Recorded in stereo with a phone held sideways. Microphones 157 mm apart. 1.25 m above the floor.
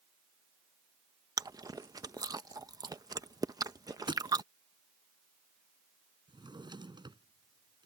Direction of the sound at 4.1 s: 30° right (ahead or behind).